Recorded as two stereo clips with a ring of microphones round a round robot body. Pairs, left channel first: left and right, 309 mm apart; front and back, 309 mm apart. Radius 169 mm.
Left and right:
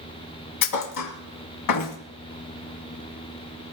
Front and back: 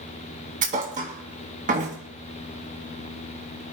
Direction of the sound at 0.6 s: 110° left.